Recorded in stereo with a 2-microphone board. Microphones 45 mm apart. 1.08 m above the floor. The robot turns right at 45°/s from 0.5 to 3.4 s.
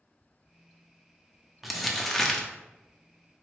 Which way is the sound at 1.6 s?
5° right (ahead or behind).